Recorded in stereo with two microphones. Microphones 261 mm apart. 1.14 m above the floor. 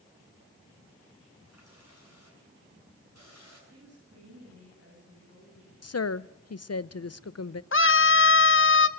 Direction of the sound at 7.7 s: 50° left (ahead or behind).